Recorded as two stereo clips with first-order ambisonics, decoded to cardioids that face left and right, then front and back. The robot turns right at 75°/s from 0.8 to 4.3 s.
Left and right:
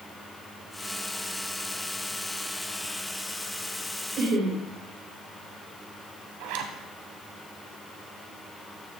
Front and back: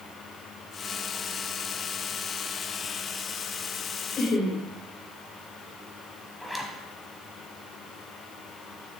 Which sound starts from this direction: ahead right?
Laughter, at 4.2 s.